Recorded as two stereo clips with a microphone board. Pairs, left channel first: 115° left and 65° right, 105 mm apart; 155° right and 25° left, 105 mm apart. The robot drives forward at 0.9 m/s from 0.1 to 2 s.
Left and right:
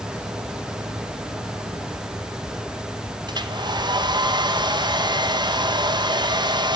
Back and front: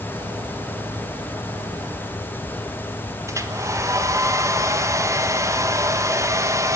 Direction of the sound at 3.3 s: 35° right.